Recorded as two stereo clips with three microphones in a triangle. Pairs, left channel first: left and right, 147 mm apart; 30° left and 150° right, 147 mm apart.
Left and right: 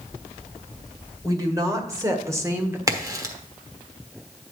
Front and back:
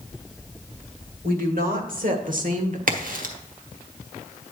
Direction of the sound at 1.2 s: 155° right.